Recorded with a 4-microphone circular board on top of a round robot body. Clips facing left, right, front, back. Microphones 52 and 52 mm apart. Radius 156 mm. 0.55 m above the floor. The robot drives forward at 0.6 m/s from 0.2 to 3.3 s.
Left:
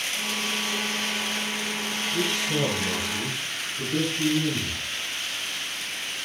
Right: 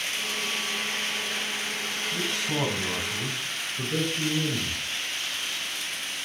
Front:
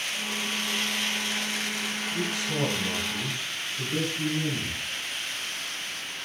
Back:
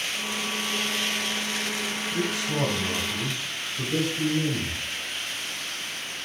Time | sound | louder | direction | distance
2.1 | a man speaking | left 4 dB, back 3 dB | 115° right | 4.5 m